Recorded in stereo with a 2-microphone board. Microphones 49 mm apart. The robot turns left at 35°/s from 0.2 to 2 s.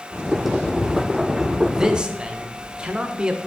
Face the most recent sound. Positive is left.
turn(degrees=-20)  # may be behind; listen again after turning